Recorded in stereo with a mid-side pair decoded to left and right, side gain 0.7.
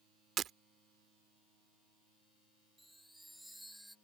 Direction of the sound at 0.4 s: 40° right.